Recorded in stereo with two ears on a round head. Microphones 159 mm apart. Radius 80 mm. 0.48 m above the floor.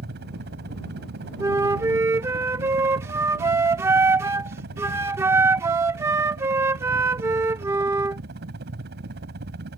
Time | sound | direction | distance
0.0 | a helicopter | 60° right (ahead or behind) | ?
1.4 | a flute | 15° right (ahead or behind) | ?